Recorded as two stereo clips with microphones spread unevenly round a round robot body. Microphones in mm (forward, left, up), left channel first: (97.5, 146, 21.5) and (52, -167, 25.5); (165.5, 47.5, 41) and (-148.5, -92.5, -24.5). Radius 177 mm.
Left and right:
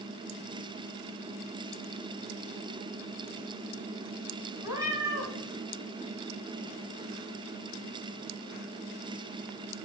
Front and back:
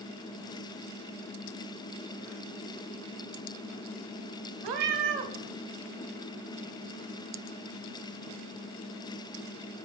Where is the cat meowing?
Straight behind, 1.0 m.